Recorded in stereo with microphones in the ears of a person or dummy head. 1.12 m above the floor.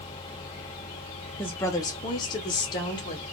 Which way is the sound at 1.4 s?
10° left (ahead or behind).